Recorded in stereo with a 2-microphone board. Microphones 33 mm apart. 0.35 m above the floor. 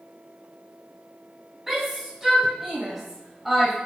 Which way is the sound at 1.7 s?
15° right (ahead or behind).